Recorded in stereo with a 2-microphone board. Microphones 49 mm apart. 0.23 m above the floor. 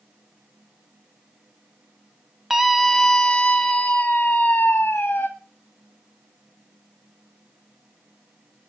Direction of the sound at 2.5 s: 10° right (ahead or behind).